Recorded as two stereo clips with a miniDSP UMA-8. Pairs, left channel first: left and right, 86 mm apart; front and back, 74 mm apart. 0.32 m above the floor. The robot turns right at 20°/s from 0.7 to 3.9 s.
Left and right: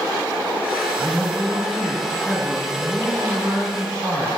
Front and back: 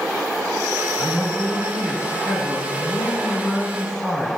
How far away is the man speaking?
About 2.5 m.